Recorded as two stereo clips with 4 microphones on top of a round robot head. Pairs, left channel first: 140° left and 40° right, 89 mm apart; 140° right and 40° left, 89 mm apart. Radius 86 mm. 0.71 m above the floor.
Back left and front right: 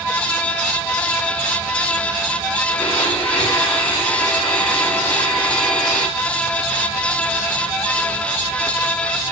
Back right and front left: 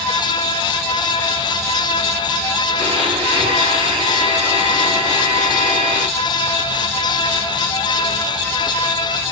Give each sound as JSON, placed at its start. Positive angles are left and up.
{"t": 2.8, "sound": "a blender", "azimuth_deg": 70, "distance_m": 8.5}